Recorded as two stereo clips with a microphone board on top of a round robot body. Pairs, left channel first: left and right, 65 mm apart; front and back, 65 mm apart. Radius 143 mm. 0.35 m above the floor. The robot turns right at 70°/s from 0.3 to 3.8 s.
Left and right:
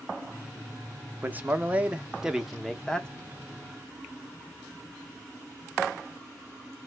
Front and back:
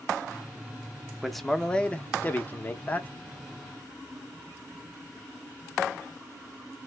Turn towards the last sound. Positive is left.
turn(degrees=85)